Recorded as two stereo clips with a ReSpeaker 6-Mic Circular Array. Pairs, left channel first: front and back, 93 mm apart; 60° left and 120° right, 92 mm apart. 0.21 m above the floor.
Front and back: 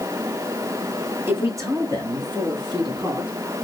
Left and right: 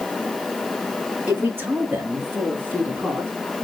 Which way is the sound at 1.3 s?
165° right.